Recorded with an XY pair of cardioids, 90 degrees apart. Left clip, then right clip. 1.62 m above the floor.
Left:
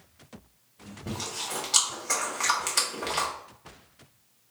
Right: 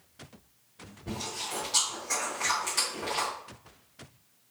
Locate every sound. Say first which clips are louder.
1.1 s chewing: left 2 dB; 65° left, 1.7 m